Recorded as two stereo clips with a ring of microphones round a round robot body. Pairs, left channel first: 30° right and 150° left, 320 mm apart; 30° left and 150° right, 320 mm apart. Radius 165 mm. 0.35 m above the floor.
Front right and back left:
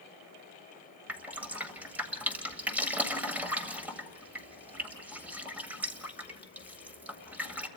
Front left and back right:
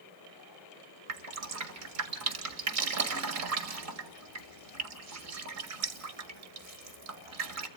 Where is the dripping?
125° right, 1.9 m.